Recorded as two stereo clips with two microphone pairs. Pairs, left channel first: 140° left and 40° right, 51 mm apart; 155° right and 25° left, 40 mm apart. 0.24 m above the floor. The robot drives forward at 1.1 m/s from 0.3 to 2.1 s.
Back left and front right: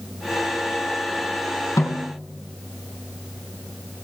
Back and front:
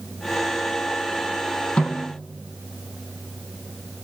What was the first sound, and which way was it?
A snare drum, 140° left.